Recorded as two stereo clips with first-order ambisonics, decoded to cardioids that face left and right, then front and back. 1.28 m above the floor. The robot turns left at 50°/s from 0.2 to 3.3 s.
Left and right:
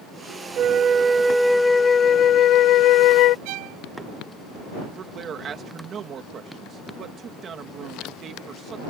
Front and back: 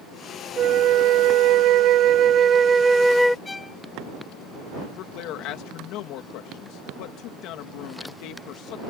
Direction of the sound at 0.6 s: 135° right.